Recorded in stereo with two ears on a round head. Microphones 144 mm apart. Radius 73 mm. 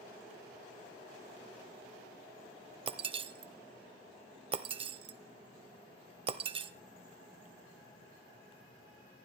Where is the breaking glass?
35° right (ahead or behind), 1.0 m.